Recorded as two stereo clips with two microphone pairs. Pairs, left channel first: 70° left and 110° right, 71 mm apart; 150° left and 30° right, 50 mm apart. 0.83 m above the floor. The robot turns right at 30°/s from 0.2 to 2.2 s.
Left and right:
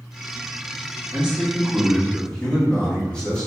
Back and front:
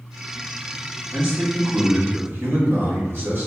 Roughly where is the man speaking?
Ahead right.